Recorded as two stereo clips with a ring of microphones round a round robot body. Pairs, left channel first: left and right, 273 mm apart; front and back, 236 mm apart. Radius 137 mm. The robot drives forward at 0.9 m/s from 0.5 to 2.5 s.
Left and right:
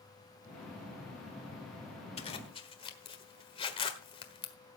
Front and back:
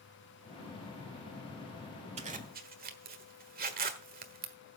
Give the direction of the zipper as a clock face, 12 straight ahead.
7 o'clock.